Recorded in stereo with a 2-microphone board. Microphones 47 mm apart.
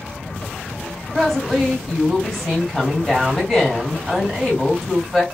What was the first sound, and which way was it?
A woman speaking, 5° left (ahead or behind).